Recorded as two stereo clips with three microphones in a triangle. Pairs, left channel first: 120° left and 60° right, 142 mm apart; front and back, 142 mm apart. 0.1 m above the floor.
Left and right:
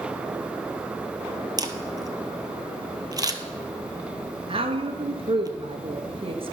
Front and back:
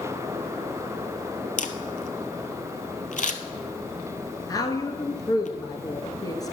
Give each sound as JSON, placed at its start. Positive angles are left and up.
{"t": 1.6, "sound": "a camera shutter", "azimuth_deg": 0, "distance_m": 0.9}
{"t": 4.5, "sound": "a woman speaking", "azimuth_deg": -50, "distance_m": 1.4}